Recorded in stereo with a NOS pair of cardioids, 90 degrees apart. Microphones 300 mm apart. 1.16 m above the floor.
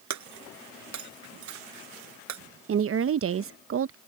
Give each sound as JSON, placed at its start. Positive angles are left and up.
{"t": 0.1, "sound": "breaking glass", "azimuth_deg": -65}
{"t": 2.7, "sound": "a woman speaking", "azimuth_deg": -45}